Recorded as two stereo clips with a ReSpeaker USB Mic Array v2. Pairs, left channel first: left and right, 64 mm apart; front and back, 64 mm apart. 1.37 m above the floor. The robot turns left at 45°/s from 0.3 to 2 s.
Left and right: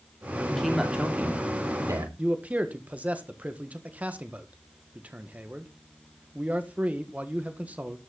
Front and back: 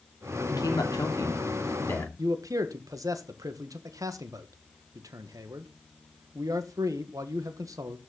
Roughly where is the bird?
No bird in this recording.